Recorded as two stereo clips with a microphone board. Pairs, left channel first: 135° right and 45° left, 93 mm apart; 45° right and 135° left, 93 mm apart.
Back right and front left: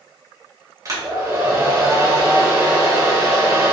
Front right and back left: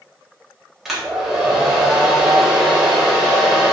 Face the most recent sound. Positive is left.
turn(degrees=50)